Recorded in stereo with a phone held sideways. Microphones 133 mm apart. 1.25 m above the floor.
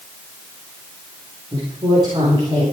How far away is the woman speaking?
About 4.5 m.